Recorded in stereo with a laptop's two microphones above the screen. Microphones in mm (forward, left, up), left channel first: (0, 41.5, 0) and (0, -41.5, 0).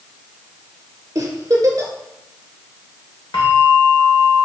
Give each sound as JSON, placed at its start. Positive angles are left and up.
{"t": 1.1, "sound": "a giggle", "side_deg": -45, "distance_m": 2.0}
{"t": 3.3, "sound": "a bell", "side_deg": 70, "distance_m": 1.8}